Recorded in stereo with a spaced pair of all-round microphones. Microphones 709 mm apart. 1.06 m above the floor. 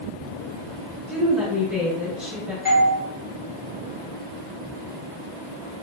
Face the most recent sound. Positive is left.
turn(degrees=15)  # may be behind; listen again after turning